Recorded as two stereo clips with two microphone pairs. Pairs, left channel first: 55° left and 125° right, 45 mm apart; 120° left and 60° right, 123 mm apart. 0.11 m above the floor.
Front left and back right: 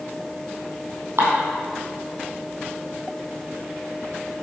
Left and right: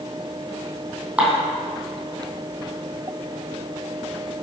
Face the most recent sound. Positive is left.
turn(degrees=-140)